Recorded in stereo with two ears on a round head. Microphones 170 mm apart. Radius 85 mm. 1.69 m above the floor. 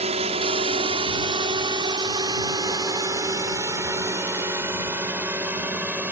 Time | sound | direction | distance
0.0 | a drone | 35° right (ahead or behind) | ?